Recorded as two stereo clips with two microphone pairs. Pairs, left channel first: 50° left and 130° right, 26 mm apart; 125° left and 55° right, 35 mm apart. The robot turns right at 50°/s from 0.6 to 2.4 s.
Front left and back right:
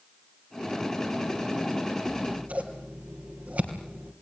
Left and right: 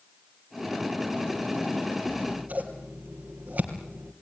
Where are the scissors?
120° right, 3 m; by 4.1 s 100° right, 3 m.